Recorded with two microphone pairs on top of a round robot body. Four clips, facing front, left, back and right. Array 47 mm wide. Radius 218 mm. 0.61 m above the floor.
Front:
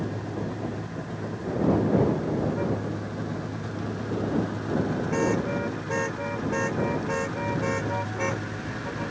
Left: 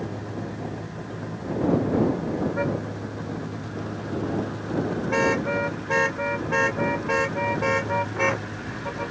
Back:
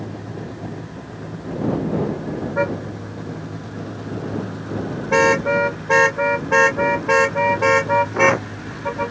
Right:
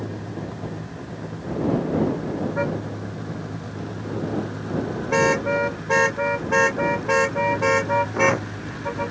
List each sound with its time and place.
2.6 s a car horn: 160° right; by 9.1 s 155° right